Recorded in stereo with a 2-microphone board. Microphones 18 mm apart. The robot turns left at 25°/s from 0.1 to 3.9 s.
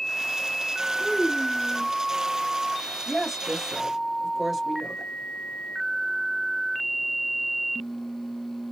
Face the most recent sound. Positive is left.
turn(degrees=-5)  # may be behind; listen again after turning